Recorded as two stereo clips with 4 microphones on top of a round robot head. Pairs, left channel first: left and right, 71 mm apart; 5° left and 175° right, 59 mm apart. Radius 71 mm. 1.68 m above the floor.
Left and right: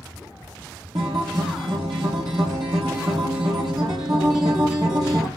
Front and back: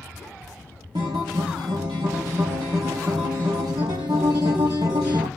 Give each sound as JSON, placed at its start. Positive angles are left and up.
{"t": 0.9, "sound": "a guitar", "azimuth_deg": -140, "distance_m": 1.8}